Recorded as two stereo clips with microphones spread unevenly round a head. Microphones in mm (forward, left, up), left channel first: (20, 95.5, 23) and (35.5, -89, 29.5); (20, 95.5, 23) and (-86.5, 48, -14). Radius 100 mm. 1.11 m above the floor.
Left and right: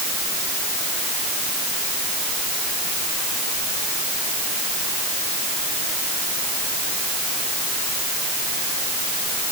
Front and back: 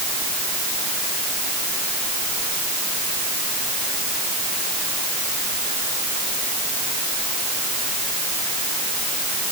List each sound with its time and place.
Only background noise.